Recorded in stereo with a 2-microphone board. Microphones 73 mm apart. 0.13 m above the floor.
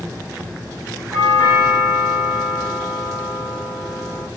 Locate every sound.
1.1 s a doorbell: 30° right (ahead or behind), 6 m